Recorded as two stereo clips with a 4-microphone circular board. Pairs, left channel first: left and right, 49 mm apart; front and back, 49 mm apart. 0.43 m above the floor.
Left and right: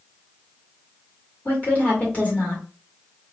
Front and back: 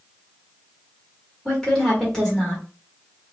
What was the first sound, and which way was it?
A woman speaking, 75° left.